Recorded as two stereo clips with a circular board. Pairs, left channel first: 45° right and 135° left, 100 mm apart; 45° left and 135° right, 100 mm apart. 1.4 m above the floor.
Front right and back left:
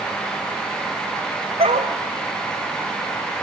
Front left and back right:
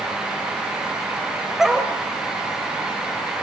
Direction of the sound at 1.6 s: 140° left.